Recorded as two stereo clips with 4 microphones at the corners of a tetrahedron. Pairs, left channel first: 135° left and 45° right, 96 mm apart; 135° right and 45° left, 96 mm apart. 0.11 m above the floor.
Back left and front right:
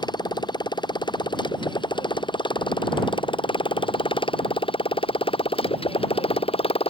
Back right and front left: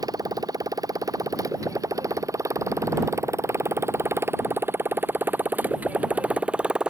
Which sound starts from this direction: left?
A motorcycle, at 0.0 s.